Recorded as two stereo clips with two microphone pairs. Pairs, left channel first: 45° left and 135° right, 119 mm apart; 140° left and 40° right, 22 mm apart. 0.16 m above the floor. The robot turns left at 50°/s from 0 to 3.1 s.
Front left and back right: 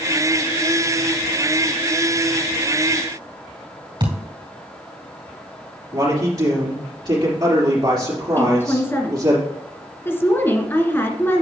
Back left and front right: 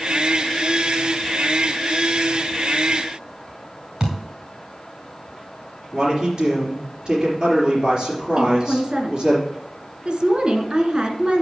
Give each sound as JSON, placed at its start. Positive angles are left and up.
{"t": 4.0, "sound": "a thud", "azimuth_deg": -90, "distance_m": 4.0}
{"t": 5.9, "sound": "a man speaking", "azimuth_deg": -90, "distance_m": 4.0}
{"t": 8.4, "sound": "a woman speaking", "azimuth_deg": -20, "distance_m": 1.6}